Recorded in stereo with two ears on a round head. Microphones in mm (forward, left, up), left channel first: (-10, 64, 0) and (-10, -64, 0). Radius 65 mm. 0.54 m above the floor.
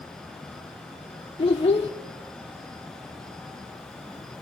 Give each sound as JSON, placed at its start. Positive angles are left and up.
{"t": 1.4, "sound": "a child speaking", "side_deg": 40, "distance_m": 0.8}